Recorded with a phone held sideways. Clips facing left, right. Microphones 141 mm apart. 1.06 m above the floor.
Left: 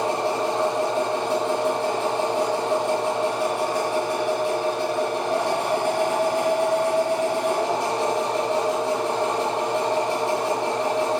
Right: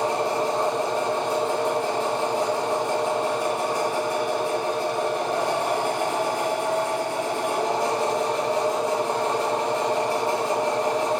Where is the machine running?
75° left (ahead or behind), 3.5 m.